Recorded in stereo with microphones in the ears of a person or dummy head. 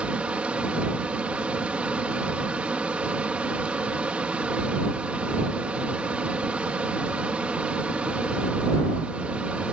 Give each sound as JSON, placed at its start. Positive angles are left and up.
{"t": 0.0, "sound": "a fan", "side_deg": -10}